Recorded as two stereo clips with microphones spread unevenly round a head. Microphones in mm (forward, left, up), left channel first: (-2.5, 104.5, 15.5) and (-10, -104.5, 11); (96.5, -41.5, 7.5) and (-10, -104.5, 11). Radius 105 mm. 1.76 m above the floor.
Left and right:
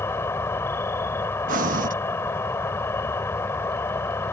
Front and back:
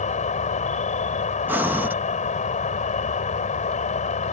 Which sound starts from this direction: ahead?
An insect, at 0.0 s.